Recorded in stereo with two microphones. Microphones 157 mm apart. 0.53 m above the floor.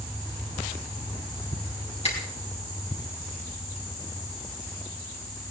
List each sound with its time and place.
2.0 s a finger snap: 40° left (ahead or behind), 4 m